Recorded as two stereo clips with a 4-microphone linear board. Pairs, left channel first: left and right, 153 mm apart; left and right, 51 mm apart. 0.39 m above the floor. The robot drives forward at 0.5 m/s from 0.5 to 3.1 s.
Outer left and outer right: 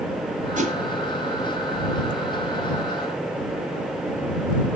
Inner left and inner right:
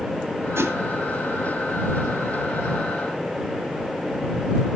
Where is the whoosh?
55° right (ahead or behind), 1.7 m; by 0.8 s 60° right (ahead or behind), 1.6 m.